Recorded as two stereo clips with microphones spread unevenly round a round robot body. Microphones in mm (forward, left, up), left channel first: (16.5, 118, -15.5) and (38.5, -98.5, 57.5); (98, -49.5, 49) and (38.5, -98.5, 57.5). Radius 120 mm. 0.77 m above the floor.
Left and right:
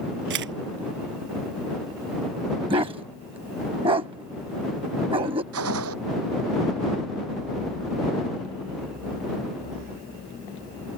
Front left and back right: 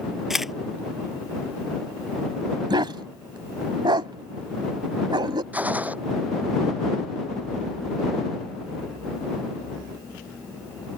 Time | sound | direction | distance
0.3 | a camera shutter | 55° right | ?
2.7 | a dog barking | 145° right | ?
5.5 | a gunshot | 70° right | ?